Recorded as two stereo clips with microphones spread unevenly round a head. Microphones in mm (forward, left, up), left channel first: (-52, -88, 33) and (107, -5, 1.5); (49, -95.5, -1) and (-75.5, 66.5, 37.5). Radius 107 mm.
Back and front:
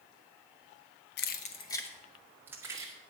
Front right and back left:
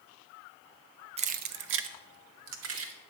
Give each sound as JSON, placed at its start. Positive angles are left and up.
{"t": 1.2, "sound": "keys jangling", "azimuth_deg": 180, "distance_m": 0.5}